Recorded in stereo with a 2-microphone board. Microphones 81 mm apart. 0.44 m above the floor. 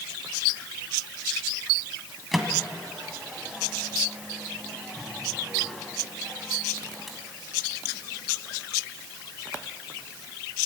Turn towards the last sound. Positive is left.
turn(degrees=0)  # may be behind; listen again after turning